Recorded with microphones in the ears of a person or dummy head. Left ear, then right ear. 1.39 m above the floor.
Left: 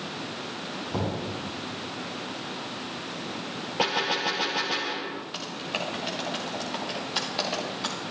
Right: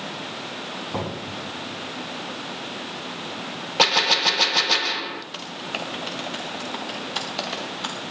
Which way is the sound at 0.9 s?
70° right (ahead or behind).